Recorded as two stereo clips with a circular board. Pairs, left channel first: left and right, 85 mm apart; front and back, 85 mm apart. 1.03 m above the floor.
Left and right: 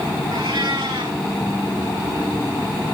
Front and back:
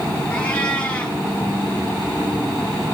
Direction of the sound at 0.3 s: 75° right.